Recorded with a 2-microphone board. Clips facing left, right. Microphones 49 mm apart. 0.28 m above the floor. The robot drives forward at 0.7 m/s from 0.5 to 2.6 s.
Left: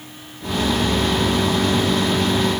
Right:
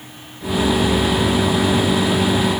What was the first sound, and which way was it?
Only background noise.